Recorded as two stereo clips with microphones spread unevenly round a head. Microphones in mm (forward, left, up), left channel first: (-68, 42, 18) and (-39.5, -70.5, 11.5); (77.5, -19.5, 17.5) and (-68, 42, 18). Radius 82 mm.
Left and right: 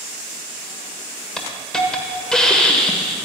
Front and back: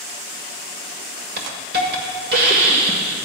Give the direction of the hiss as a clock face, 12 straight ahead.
6 o'clock.